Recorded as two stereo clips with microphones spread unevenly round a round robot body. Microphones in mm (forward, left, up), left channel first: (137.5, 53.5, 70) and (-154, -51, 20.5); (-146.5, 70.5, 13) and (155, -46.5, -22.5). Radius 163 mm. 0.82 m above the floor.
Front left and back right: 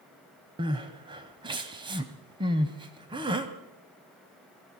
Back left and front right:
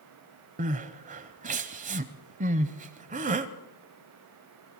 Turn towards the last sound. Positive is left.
turn(degrees=-80)